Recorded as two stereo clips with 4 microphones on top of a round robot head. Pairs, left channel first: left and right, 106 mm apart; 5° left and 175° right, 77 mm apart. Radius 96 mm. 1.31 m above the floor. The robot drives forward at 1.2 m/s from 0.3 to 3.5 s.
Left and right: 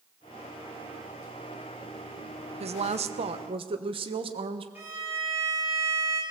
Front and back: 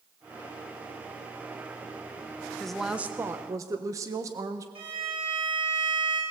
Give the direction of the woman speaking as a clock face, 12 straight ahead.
3 o'clock.